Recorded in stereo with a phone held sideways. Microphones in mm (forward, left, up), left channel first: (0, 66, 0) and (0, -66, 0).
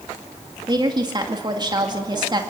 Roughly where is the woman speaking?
Right.